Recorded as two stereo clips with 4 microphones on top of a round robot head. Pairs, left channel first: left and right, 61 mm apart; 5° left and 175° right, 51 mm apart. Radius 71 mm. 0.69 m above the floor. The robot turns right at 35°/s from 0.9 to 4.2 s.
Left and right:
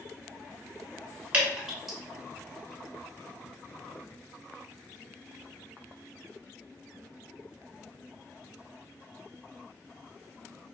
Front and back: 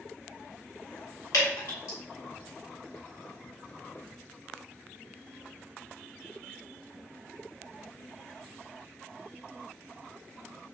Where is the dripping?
20° right, 1.2 m; by 2.0 s straight ahead, 1.2 m.